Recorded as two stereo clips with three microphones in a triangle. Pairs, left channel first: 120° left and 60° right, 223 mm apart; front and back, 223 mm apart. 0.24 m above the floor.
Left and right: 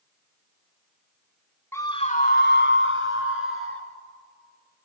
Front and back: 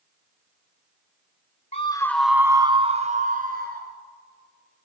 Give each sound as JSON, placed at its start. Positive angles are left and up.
{"t": 1.7, "sound": "a scream", "azimuth_deg": 45, "distance_m": 1.5}